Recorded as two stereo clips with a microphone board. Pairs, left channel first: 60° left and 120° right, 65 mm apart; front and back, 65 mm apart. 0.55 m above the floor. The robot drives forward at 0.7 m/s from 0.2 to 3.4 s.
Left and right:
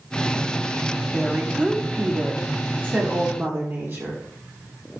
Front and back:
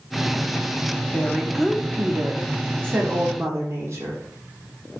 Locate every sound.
1.1 s a woman speaking: 50° right, 1.1 m; by 4.2 s 165° right, 1.7 m